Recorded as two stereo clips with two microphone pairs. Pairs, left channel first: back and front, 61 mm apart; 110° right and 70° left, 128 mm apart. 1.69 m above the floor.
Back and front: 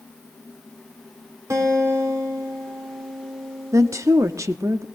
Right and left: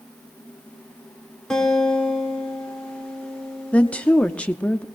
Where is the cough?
No cough in this recording.